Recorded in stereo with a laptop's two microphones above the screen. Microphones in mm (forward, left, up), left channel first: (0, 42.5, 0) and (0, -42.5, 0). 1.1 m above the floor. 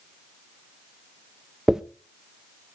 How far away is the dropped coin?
About 0.6 m.